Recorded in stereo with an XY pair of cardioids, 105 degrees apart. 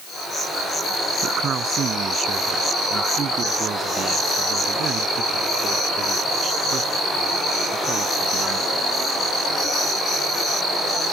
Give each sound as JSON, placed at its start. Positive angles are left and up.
{"t": 1.2, "sound": "a man speaking", "azimuth_deg": -50}